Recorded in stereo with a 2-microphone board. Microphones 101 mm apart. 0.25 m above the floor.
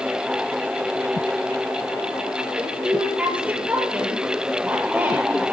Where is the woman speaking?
15° right (ahead or behind), 7.5 m.